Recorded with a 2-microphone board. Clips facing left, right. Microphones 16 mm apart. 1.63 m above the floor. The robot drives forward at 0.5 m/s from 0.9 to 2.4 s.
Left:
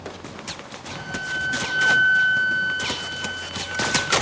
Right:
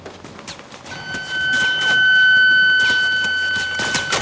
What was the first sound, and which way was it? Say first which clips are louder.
A flute: right 4 dB; 40° right (ahead or behind).